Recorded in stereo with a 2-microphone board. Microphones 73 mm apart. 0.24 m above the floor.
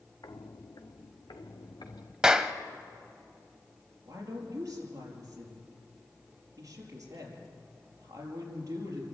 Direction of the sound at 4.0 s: 45° right (ahead or behind).